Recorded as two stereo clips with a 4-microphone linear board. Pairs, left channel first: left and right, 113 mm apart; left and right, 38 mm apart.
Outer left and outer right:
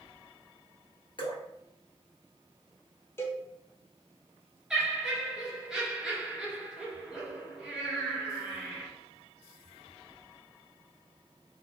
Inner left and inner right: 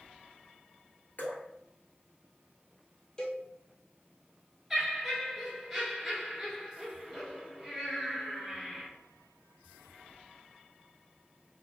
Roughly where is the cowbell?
Left.